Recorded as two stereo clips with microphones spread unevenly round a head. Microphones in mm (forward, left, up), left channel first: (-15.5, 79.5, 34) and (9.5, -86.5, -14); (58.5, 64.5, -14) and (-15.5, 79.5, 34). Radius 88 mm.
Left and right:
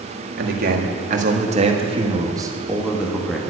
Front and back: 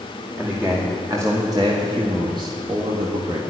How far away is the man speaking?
About 2 m.